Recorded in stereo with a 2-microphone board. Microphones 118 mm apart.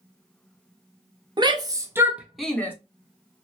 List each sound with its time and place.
1.4 s a shout: 40° right (ahead or behind), 1.0 m; by 2.7 s 15° left (ahead or behind), 0.8 m